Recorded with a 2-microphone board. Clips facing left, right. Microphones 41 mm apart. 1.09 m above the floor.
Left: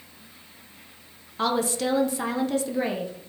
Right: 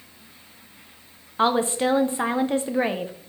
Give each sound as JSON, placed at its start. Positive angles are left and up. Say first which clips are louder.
{"t": 1.4, "sound": "a woman speaking", "louder": "right 4 dB", "side_deg": -30, "distance_m": 0.8}